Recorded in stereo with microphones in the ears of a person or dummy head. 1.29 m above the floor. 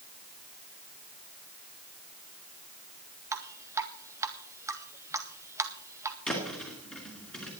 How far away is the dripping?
About 0.9 m.